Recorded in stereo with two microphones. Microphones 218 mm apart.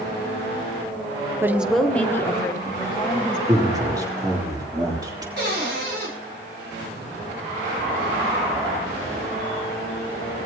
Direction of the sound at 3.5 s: 15° right (ahead or behind).